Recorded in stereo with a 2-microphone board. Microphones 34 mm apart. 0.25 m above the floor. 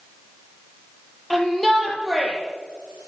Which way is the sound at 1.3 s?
5° left (ahead or behind).